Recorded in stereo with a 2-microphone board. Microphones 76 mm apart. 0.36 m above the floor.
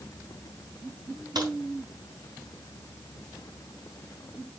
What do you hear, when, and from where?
1.4 s a crack: 60° right (ahead or behind), 3.5 m